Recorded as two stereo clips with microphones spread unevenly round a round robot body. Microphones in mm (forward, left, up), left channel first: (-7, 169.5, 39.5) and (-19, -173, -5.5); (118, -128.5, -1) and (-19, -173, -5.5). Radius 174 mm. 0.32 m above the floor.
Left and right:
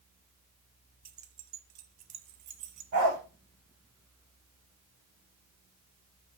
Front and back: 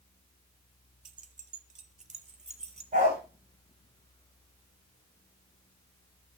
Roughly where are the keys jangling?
Behind right.